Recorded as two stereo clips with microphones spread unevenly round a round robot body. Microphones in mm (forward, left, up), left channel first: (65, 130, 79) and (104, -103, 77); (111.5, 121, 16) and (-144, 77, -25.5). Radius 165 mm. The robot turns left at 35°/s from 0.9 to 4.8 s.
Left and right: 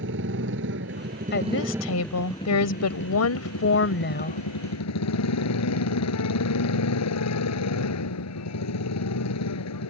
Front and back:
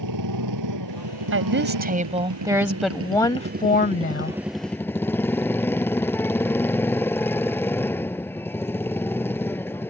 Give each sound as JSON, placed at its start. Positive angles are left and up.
{"t": 0.0, "sound": "a motorcycle", "azimuth_deg": -135}
{"t": 1.3, "sound": "a woman speaking", "azimuth_deg": 155}